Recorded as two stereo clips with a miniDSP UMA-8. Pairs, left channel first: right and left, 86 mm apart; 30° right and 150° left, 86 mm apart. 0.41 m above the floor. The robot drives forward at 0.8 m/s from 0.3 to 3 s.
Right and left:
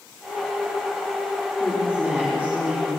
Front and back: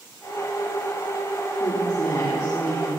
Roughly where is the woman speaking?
Ahead.